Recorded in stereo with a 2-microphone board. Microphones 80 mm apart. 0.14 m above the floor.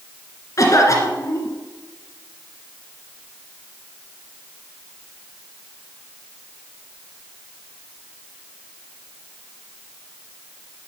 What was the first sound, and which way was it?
A cough, 45° left (ahead or behind).